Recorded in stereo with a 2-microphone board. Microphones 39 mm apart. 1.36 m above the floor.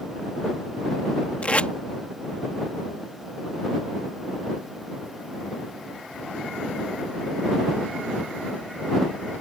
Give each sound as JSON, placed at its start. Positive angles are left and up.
{"t": 1.4, "sound": "tape being pulled", "side_deg": 40}